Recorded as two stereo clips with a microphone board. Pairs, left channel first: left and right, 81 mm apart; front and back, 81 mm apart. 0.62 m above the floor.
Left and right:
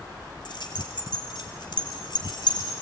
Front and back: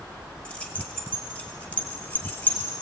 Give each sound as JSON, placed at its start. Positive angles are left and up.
{"t": 0.5, "sound": "keys jangling", "azimuth_deg": 75, "distance_m": 2.0}